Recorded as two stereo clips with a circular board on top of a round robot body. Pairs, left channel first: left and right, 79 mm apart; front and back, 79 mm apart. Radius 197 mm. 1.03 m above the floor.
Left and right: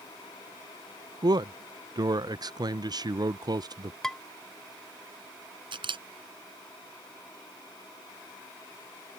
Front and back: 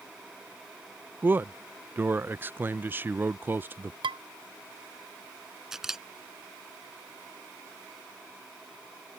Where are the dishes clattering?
175° left.